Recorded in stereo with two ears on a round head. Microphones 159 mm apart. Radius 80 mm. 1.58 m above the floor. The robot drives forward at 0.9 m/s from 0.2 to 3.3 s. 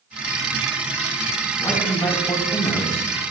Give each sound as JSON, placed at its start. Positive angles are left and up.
{"t": 1.6, "sound": "a man speaking", "side_deg": 15, "distance_m": 4.5}